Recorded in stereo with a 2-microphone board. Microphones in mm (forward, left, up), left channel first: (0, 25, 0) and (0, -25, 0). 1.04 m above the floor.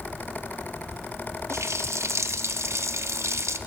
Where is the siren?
No siren in this recording.